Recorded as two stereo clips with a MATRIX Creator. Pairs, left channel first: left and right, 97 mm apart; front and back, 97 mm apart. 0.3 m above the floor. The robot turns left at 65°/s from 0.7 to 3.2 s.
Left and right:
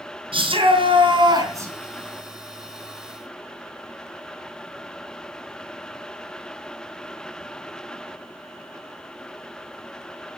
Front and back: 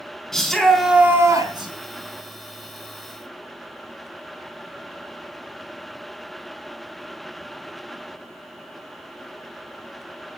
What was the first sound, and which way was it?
A shout, 85° right.